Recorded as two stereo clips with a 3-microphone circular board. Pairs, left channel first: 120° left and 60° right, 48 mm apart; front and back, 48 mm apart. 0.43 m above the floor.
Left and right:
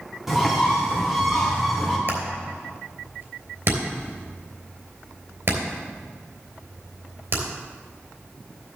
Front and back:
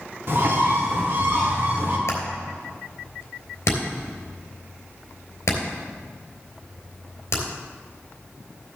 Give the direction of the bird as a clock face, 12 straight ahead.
5 o'clock.